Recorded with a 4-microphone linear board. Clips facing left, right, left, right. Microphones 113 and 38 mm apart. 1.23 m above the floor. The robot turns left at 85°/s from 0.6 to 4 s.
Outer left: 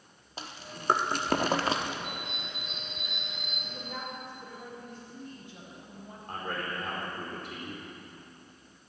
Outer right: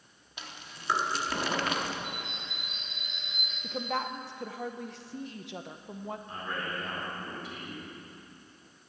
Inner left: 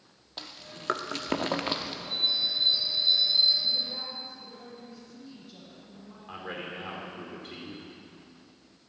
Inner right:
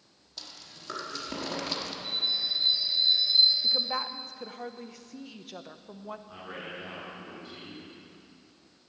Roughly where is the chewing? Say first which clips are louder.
Outer left 4 dB, inner left 4 dB; left.